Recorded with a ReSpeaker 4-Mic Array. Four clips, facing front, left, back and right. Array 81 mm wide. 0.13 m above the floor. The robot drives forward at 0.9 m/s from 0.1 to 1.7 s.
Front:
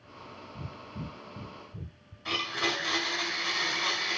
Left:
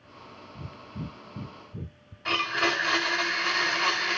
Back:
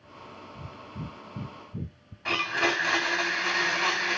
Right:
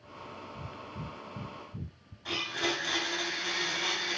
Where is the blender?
155° left, 3 m.